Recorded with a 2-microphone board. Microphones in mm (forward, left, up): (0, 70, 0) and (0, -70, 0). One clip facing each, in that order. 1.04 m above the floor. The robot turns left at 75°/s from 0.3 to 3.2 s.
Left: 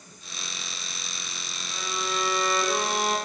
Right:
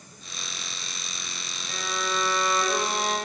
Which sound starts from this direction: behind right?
A violin, at 1.7 s.